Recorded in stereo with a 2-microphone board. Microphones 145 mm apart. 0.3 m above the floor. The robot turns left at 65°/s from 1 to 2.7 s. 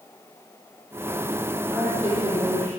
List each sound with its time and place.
1.7 s a woman speaking: 5° left, 10 m; by 2.7 s 60° right, 10 m